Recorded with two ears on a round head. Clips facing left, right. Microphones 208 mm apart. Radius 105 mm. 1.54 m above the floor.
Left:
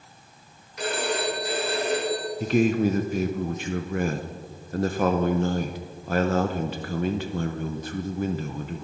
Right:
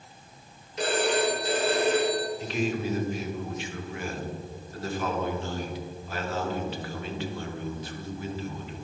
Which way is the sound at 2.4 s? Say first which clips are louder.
Left 8 dB; 40° left (ahead or behind).